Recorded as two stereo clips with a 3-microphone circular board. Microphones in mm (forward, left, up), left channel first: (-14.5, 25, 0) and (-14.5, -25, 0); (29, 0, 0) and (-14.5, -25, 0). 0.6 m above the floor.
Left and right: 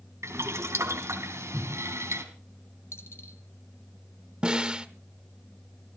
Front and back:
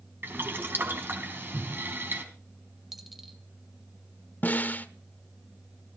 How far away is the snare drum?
About 1.1 m.